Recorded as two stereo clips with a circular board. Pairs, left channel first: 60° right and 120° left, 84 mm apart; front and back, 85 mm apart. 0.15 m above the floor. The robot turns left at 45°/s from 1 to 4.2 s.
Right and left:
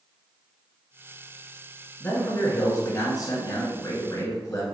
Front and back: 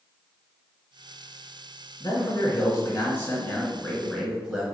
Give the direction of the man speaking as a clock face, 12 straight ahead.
12 o'clock.